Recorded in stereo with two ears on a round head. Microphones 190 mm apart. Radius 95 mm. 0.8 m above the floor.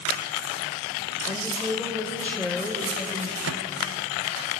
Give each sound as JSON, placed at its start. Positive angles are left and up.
{"t": 1.3, "sound": "a woman speaking", "side_deg": 10, "distance_m": 2.5}
{"t": 3.4, "sound": "a microwave", "side_deg": -65, "distance_m": 0.8}